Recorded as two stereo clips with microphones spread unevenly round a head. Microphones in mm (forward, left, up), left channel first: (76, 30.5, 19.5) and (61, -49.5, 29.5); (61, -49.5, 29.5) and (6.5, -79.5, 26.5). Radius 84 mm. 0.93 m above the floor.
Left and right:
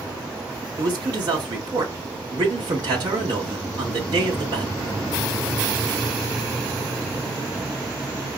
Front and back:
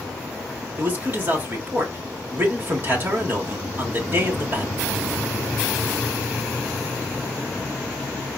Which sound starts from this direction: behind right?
A man speaking, at 0.8 s.